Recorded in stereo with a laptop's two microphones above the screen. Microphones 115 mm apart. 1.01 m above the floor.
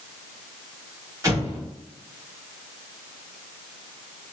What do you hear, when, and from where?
1.2 s an explosion: 25° right (ahead or behind), 0.8 m